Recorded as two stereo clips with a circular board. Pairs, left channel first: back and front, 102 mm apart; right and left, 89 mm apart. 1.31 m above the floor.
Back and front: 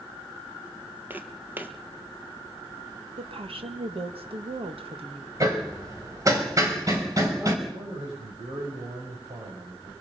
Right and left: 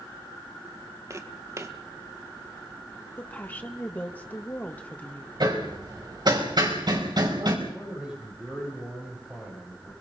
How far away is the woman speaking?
About 2 m.